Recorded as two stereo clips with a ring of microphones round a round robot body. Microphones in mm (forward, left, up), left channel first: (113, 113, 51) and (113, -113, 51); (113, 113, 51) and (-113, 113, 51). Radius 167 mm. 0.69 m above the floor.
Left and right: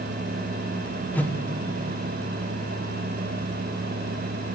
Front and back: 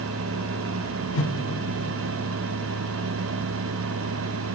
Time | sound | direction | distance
1.1 | a whoosh | 10° left | 1.9 m